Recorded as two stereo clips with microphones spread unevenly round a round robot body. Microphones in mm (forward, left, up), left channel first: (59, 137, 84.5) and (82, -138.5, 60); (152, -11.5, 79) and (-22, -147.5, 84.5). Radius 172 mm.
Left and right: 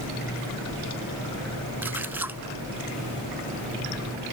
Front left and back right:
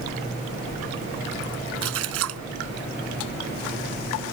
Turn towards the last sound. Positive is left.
turn(degrees=-170)